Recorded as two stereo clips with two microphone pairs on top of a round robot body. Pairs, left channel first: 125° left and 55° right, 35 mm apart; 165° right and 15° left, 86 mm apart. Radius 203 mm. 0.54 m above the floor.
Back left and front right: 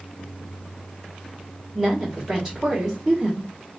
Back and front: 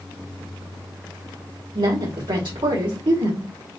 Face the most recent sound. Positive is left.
turn(degrees=15)